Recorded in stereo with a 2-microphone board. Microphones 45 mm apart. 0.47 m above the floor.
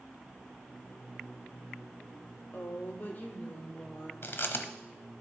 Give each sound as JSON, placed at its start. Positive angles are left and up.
{"t": 2.5, "sound": "a woman speaking", "side_deg": 45, "distance_m": 1.4}
{"t": 4.2, "sound": "chewing", "side_deg": 60, "distance_m": 0.9}